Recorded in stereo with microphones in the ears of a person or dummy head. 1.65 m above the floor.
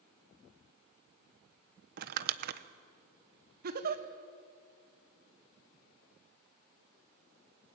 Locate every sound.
2.0 s crumpling: 60° right (ahead or behind), 1.1 m
3.6 s a giggle: 45° right (ahead or behind), 1.3 m